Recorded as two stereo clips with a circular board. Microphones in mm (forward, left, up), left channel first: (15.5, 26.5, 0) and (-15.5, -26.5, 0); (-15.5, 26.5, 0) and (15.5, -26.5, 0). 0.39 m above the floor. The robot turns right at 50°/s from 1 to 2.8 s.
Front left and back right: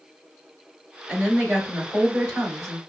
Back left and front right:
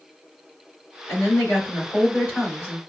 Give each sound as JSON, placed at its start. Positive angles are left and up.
{"t": 1.1, "sound": "a woman speaking", "azimuth_deg": 140, "distance_m": 3.0}